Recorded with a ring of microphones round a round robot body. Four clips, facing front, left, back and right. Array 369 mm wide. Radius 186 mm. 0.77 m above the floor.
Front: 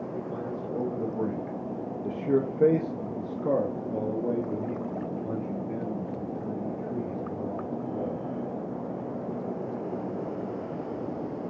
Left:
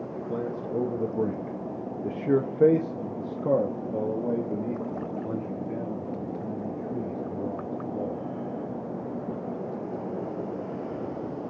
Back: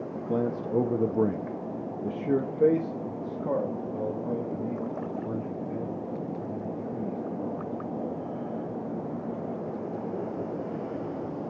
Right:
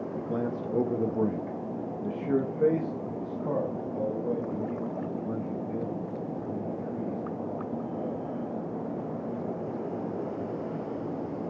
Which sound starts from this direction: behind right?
A man speaking, at 0.1 s.